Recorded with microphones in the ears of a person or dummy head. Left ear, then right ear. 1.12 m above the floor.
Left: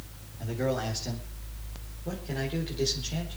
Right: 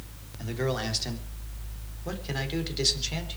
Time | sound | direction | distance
0.4 | a man speaking | 45° right (ahead or behind) | 3.5 m